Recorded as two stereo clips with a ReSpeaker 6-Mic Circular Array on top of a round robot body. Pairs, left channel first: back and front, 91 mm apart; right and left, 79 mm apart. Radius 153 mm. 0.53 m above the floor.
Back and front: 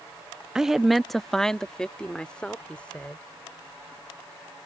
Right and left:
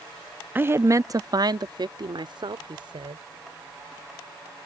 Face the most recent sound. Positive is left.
turn(degrees=105)